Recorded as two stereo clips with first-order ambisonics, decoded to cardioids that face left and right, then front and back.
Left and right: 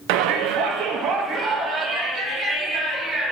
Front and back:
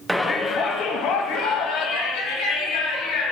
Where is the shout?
95° right, 0.6 m; by 3.3 s 25° right, 3 m.